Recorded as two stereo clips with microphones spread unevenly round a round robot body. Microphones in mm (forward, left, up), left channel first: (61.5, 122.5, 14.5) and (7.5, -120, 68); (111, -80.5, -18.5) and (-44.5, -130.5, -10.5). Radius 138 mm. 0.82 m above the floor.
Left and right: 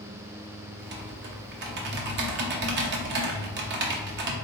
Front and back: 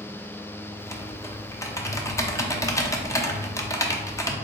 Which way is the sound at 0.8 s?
55° right.